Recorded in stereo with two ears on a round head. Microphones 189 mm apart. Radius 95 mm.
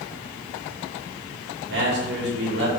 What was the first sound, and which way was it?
A man speaking, 55° right (ahead or behind).